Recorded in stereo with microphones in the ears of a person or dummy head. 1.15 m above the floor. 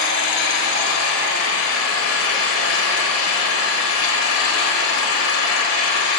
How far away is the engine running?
About 1.4 m.